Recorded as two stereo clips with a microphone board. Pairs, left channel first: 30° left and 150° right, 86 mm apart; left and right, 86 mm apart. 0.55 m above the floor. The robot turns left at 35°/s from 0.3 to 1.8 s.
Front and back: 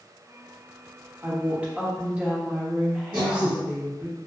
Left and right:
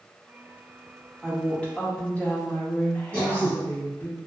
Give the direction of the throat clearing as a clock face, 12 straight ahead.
5 o'clock.